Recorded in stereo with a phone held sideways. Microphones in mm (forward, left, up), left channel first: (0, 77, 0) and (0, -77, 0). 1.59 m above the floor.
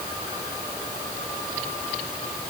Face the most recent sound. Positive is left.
No sound to turn to.